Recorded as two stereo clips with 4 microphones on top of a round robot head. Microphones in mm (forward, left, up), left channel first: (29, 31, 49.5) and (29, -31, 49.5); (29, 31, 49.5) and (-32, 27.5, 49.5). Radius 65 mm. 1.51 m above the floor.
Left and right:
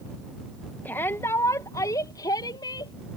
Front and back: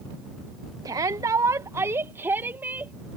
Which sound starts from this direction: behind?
A shout, at 0.8 s.